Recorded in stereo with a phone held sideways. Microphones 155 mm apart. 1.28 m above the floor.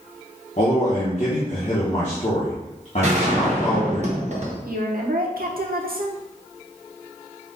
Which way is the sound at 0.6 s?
55° left (ahead or behind).